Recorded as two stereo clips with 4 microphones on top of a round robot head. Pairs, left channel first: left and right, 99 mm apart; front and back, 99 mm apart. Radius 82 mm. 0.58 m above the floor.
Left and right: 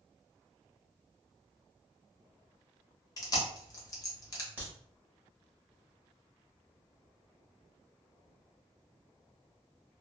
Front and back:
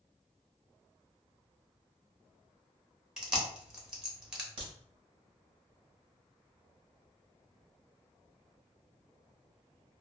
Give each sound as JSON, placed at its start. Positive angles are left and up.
{"t": 3.2, "sound": "chewing", "azimuth_deg": 105, "distance_m": 1.0}
{"t": 4.6, "sound": "a crack", "azimuth_deg": -160, "distance_m": 1.0}